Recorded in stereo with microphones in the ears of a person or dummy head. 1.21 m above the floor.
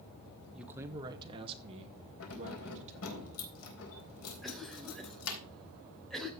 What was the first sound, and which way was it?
A man speaking, centre (ahead or behind).